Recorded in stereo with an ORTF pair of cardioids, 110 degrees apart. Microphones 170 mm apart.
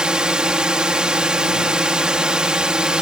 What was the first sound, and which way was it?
A drone, 5° right.